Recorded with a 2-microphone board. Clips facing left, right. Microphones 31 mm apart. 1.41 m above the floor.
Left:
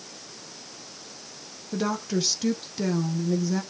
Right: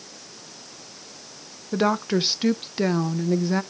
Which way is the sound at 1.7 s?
35° right (ahead or behind).